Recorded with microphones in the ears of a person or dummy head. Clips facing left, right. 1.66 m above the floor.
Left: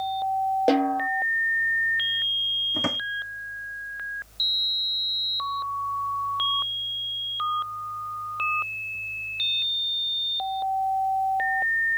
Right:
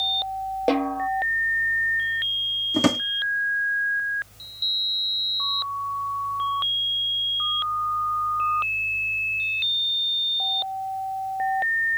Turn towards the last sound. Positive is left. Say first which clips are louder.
# right 10 dB
turn(degrees=-55)  # may be behind; listen again after turning